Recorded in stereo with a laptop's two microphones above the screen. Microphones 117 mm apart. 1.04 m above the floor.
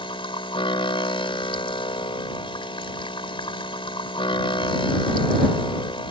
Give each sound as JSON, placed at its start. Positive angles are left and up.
{"t": 0.0, "sound": "a machine running", "side_deg": 50}